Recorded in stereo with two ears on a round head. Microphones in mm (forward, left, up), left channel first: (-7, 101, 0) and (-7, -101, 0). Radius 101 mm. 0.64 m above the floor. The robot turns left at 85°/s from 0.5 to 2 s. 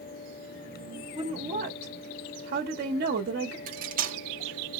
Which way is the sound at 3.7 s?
35° right (ahead or behind).